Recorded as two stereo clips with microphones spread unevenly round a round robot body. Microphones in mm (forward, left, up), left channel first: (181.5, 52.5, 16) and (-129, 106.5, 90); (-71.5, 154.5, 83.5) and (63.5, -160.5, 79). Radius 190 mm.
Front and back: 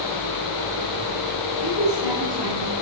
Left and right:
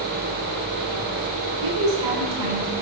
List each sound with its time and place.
1.6 s a woman speaking: 50° right, 6.5 m; by 2.7 s 55° right, 6 m